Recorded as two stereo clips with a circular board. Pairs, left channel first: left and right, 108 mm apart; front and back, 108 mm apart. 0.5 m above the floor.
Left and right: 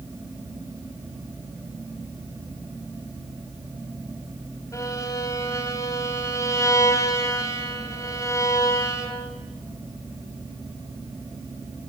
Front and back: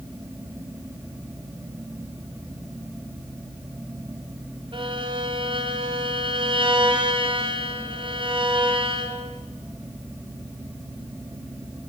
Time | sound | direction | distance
4.7 | a violin | 150° left | 3.5 m